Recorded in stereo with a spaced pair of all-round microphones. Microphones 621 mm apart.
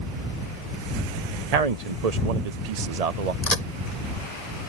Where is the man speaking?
80° right.